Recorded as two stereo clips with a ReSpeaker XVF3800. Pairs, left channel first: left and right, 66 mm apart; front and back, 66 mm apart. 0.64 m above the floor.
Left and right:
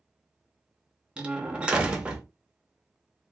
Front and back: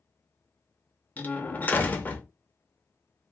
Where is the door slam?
35° right, 0.6 m.